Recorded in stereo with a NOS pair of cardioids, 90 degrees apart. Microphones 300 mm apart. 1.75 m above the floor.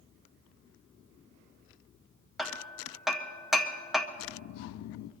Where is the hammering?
Straight ahead, 1.2 m.